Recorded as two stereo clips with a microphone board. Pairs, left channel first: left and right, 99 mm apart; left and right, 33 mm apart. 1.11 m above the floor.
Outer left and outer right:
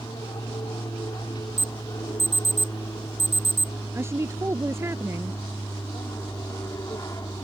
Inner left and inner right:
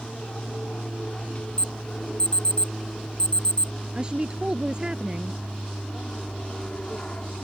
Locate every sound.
0.0 s an aircraft: 45° left (ahead or behind); by 7.5 s 35° left (ahead or behind)
1.6 s an alarm: 25° left (ahead or behind)
3.9 s a woman speaking: 25° right (ahead or behind)